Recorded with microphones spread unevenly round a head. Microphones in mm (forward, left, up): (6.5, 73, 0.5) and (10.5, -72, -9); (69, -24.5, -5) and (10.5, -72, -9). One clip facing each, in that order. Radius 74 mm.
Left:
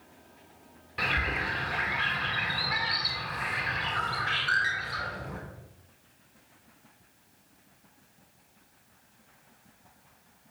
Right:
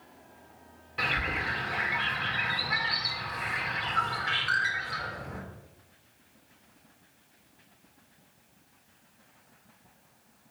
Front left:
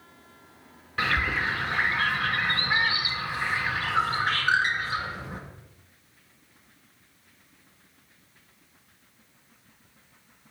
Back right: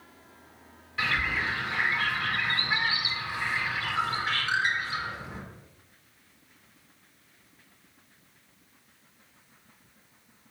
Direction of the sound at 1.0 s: 5° left.